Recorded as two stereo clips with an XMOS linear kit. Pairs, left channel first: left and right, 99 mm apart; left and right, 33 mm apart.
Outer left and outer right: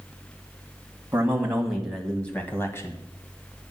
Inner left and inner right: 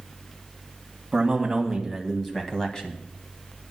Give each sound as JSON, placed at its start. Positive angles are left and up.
{"t": 1.1, "sound": "a man speaking", "side_deg": -20, "distance_m": 1.7}